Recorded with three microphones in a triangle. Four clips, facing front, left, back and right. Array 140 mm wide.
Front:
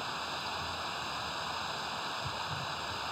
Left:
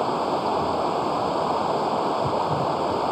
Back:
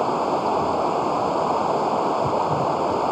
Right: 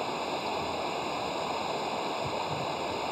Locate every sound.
0.0 s running water: 155° left